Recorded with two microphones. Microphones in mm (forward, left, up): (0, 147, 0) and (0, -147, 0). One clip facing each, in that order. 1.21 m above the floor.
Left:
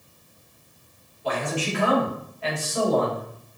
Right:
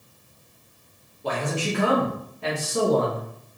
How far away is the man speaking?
About 2 m.